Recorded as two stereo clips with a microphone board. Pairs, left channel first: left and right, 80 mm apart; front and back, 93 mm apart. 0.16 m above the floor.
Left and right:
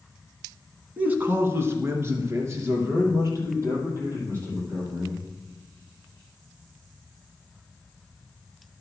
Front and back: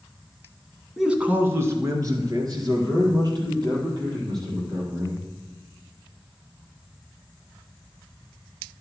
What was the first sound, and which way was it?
A man speaking, 100° right.